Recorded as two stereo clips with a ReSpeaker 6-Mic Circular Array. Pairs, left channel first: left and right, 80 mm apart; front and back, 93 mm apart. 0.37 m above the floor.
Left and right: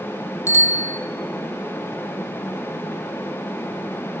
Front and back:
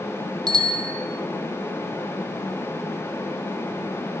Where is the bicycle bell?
140° left, 2 m.